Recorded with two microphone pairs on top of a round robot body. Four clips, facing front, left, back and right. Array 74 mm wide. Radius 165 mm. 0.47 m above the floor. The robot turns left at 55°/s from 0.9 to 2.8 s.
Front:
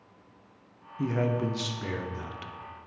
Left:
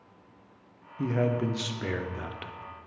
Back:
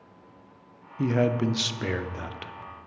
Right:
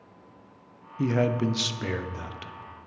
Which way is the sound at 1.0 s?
125° right.